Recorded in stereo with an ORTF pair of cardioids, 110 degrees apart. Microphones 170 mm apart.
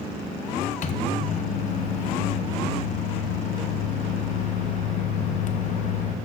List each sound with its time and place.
0.8 s a microwave: 45° left, 0.7 m